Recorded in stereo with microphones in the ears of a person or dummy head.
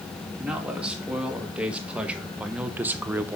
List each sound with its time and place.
0.4 s a man speaking: 5° right (ahead or behind), 2 m; by 3.4 s 10° right (ahead or behind), 0.7 m